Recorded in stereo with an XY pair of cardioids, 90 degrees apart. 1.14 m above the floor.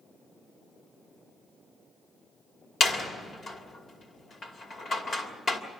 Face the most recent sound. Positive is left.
turn(degrees=55)